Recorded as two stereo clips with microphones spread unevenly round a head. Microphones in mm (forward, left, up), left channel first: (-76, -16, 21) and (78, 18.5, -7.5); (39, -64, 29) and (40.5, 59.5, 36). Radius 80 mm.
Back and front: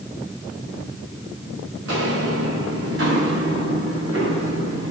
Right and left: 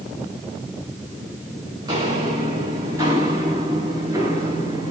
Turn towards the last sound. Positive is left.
turn(degrees=25)